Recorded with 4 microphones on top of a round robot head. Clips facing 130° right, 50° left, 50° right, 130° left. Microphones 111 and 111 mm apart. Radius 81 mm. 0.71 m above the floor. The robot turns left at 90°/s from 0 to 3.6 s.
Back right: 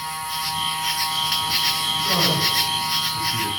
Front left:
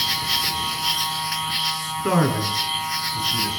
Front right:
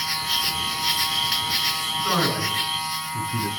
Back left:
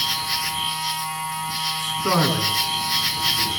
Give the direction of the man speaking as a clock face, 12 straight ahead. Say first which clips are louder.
Front left 6 dB, back left 3 dB; 9 o'clock.